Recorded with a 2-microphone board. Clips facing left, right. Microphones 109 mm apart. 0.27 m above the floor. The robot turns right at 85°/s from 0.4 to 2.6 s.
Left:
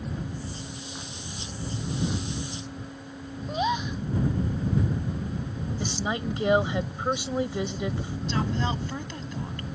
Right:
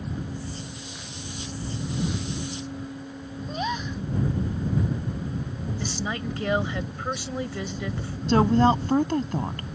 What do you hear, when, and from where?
3.5 s a gasp: 15° left (ahead or behind)
5.8 s a woman speaking: 20° left (ahead or behind)
8.3 s a woman speaking: 55° right (ahead or behind)